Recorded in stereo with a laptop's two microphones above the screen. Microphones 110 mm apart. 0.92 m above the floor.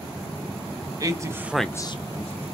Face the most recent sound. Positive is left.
turn(degrees=75)  # may be behind; listen again after turning